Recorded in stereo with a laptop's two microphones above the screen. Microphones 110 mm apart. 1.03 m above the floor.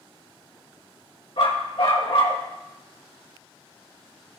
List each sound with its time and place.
1.4 s a dog barking: 60° left (ahead or behind), 1.9 m